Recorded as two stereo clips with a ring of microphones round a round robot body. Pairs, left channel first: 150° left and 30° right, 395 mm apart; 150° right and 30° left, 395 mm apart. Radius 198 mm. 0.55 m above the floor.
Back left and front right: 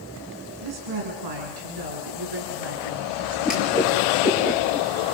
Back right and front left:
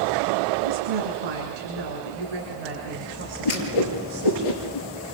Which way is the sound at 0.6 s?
5° left.